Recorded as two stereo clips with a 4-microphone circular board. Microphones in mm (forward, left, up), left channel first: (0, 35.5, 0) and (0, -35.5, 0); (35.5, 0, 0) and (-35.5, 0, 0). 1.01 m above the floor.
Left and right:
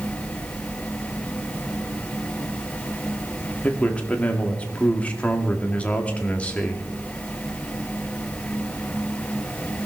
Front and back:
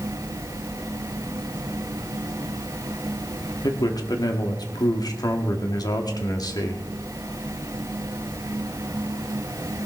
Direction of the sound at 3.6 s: 20° left.